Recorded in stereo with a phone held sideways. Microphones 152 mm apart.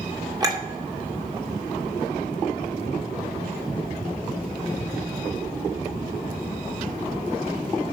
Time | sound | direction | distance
0.4 | a clink | 25° right (ahead or behind) | 2.5 m